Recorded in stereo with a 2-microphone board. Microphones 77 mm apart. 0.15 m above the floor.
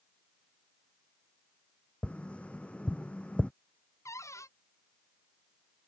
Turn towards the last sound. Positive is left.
turn(degrees=40)  # may be behind; listen again after turning